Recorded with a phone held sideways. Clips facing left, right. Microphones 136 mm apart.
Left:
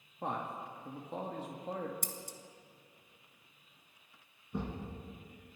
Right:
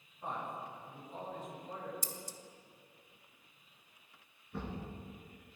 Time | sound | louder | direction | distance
0.2 | a man speaking | left 3 dB | 70° left (ahead or behind) | 1.9 m
2.0 | scissors | left 1 dB | 55° left (ahead or behind) | 1.1 m
4.5 | a thud | left 3 dB | 20° left (ahead or behind) | 5.5 m